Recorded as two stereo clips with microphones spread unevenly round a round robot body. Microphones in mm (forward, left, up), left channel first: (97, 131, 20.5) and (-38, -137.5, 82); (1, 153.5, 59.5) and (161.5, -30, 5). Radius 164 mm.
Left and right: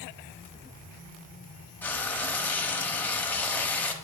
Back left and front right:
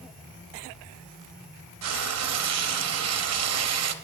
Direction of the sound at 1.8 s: 25° right.